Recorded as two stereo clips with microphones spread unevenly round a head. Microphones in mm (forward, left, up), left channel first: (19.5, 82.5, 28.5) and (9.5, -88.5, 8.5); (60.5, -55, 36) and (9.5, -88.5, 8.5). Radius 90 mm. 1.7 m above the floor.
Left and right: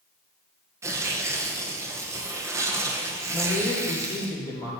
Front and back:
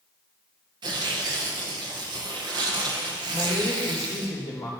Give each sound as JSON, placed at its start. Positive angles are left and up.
{"t": 0.8, "sound": "tearing paper", "azimuth_deg": -170, "distance_m": 1.0}
{"t": 3.3, "sound": "a man speaking", "azimuth_deg": 20, "distance_m": 3.5}